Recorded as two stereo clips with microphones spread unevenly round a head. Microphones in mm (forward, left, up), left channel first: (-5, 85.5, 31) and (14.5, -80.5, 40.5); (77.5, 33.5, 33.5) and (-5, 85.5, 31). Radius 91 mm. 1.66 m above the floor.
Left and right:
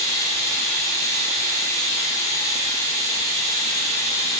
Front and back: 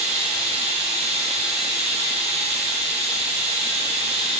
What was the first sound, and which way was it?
Running water, 170° left.